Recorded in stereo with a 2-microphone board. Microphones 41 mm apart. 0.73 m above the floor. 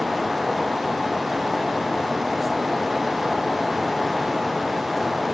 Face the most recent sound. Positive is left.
No sound to turn to.